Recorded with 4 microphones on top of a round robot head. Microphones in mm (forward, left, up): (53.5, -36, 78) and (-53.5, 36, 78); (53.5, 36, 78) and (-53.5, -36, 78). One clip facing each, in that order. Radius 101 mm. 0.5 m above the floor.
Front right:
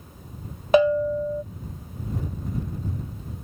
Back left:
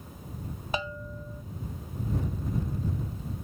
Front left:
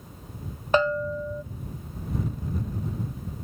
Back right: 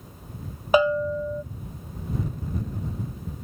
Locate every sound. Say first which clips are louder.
0.7 s a bell: front right 18 dB, back right 3 dB; 65° right